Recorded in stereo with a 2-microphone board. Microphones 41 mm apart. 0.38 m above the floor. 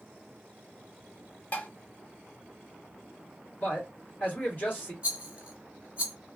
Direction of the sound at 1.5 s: 40° left (ahead or behind).